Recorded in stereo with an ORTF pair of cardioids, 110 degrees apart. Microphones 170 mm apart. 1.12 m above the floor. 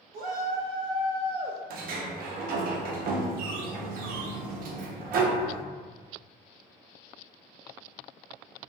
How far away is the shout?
About 0.7 m.